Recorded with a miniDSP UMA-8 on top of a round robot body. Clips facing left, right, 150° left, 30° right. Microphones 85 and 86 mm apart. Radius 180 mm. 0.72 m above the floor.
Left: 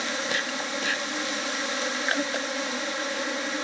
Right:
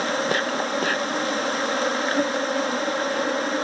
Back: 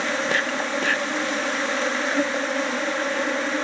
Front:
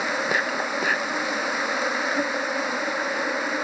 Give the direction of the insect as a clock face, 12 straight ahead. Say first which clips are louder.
Right 7 dB, back 1 dB; 4 o'clock.